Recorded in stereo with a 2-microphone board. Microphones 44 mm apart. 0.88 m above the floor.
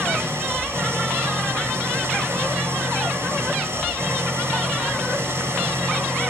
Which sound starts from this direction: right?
An engine running, at 0.0 s.